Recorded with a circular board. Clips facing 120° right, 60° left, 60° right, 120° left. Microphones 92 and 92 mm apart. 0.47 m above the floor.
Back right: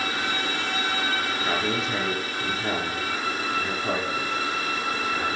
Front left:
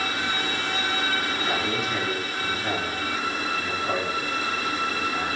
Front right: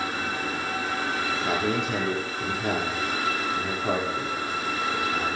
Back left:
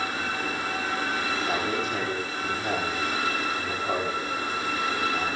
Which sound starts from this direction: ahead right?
A man speaking, at 1.3 s.